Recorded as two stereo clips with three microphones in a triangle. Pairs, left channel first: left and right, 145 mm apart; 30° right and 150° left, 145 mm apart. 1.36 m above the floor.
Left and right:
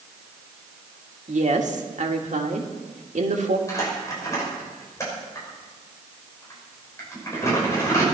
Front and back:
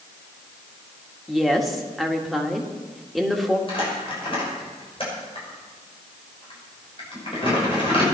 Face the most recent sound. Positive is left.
turn(degrees=20)